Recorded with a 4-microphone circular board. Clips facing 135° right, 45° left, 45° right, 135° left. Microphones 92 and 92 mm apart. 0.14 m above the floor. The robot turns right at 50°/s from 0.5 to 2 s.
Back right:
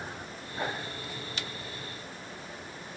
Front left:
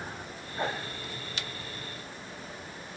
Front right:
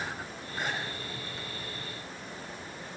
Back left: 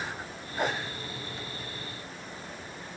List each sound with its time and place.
0.6 s a whoosh: 100° left, 5 m; by 0.8 s 110° left, 5 m